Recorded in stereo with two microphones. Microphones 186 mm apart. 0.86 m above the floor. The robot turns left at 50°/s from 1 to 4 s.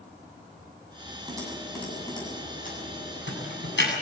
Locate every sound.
1.3 s typing on a keyboard: 20° right (ahead or behind), 8.5 m; by 3.9 s 70° left (ahead or behind), 8.5 m